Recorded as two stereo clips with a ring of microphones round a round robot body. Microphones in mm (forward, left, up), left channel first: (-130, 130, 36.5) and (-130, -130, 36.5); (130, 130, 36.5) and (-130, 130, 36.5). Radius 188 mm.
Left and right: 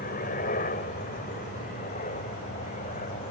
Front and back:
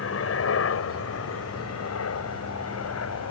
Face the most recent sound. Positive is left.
turn(degrees=20)